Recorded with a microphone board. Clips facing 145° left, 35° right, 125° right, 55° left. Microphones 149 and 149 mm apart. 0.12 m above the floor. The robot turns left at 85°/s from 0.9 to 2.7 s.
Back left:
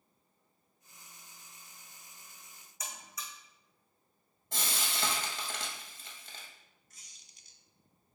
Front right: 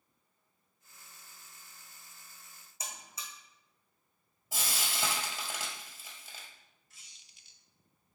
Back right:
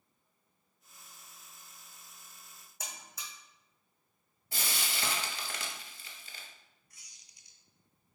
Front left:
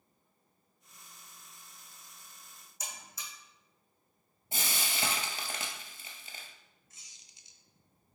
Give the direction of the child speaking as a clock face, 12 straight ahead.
No child speaking in this recording.